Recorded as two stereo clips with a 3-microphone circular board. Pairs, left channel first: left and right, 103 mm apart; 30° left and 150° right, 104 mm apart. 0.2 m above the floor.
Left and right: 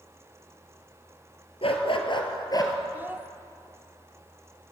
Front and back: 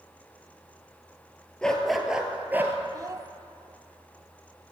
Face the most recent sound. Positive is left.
turn(degrees=-145)